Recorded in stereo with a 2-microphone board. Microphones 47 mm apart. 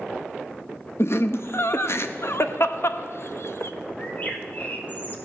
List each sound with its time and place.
1.0 s laughter: 60° left (ahead or behind), 0.7 m
4.0 s a bird: 40° left (ahead or behind), 1.4 m